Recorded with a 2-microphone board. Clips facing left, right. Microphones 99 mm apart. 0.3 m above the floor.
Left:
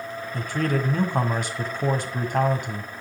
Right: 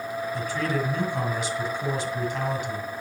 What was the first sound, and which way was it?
A man speaking, 55° left (ahead or behind).